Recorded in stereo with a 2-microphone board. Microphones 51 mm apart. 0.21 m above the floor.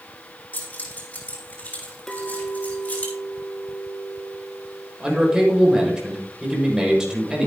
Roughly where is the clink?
Centre.